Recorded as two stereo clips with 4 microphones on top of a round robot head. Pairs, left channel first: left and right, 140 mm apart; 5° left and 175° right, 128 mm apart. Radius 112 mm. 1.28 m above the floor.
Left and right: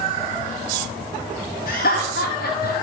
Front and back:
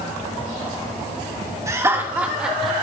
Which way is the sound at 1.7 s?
120° left.